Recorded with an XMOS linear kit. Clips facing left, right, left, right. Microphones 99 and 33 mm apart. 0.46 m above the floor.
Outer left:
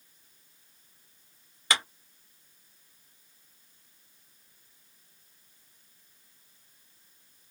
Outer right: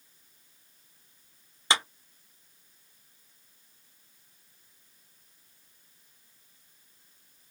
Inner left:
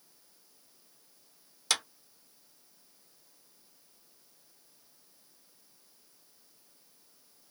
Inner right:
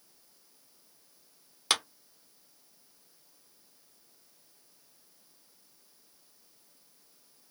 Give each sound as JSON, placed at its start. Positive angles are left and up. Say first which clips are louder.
{"t": 1.7, "sound": "a clap", "louder": "outer right 2 dB, inner right 3 dB", "side_deg": -25, "distance_m": 1.0}